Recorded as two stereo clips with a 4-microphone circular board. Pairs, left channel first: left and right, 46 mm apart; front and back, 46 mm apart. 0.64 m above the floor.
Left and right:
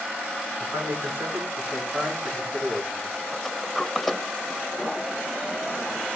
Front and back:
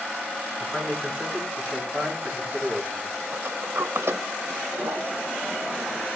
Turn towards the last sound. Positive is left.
turn(degrees=175)